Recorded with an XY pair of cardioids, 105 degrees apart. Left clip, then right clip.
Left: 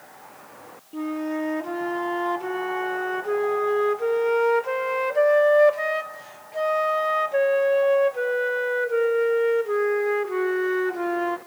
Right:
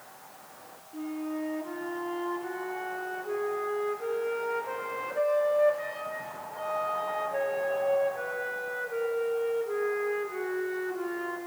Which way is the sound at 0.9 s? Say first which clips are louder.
Left 7 dB; 65° left.